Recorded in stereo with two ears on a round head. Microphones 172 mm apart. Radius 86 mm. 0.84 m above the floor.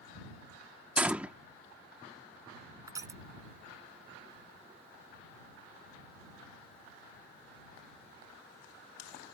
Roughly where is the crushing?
Centre.